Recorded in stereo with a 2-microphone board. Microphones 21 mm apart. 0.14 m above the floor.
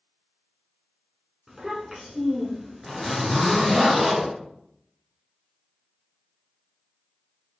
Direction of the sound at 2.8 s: 20° right (ahead or behind).